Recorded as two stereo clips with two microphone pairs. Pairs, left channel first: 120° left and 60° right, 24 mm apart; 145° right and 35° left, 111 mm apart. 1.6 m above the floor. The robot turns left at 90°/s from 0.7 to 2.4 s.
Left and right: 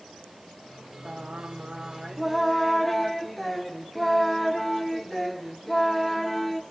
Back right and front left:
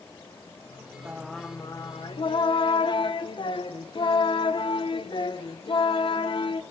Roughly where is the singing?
Ahead right.